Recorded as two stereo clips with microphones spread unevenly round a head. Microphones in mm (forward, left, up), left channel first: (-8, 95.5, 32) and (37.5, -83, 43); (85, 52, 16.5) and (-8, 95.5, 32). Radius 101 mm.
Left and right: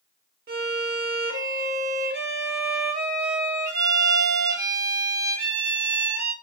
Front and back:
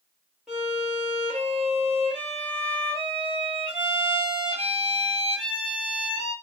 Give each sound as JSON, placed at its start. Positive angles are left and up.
{"t": 0.5, "sound": "a violin", "azimuth_deg": -115, "distance_m": 0.9}